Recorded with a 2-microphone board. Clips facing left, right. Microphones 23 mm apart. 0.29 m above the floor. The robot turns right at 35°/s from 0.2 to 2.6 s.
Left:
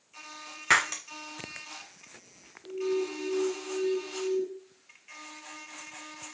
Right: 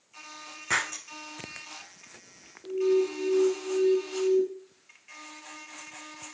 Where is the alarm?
55° right (ahead or behind), 1.3 m.